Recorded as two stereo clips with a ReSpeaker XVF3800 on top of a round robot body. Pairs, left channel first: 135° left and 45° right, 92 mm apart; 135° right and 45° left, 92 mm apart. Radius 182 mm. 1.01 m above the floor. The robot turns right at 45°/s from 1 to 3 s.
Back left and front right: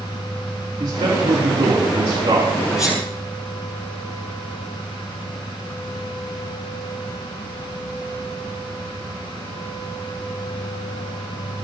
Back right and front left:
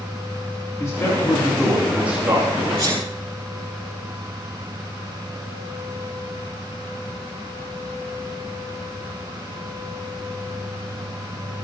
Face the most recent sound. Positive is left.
turn(degrees=45)